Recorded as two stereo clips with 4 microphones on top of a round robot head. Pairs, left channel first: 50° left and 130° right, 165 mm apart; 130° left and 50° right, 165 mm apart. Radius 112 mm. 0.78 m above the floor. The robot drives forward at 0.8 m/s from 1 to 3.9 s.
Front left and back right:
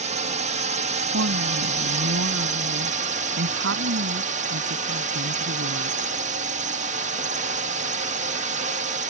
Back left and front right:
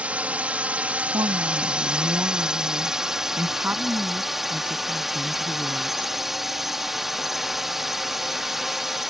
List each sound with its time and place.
0.0 s a drone: 130° right; by 9.1 s 135° right
1.1 s a woman speaking: 120° right; by 6.1 s 130° right